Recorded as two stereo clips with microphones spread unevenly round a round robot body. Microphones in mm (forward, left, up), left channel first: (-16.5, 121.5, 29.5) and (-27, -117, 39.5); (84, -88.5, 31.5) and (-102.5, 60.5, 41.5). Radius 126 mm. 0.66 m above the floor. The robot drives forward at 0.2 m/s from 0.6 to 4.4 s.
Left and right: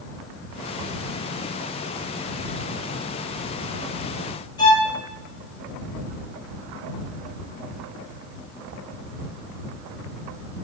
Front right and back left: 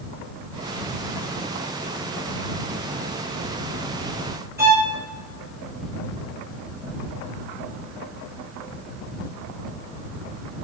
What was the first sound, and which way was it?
A violin, 80° left.